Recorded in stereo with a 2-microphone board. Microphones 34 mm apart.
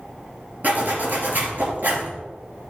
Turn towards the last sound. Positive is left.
turn(degrees=-45)  # may be behind; listen again after turning